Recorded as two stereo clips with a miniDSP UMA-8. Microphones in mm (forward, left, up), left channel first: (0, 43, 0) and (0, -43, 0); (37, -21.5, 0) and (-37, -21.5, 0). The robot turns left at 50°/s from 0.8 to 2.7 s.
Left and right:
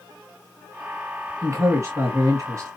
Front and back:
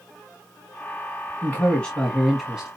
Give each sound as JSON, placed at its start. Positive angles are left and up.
{"t": 1.4, "sound": "a man speaking", "azimuth_deg": -50, "distance_m": 1.7}